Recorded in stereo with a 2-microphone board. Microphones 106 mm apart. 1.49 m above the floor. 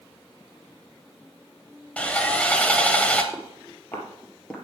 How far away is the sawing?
About 1.1 m.